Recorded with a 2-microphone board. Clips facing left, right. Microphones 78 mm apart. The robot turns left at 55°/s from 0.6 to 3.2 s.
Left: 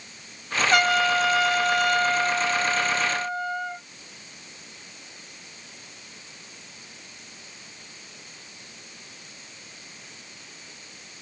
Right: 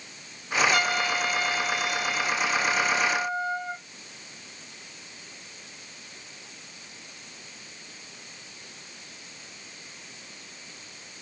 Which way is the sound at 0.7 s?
115° left.